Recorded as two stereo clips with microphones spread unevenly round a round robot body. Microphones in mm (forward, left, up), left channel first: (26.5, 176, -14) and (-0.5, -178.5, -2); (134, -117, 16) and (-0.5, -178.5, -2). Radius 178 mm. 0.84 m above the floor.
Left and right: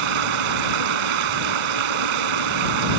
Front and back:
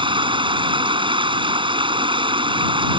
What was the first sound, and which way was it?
Running water, 100° right.